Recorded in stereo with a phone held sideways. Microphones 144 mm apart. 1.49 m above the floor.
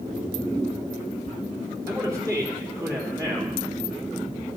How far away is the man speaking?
About 3.5 m.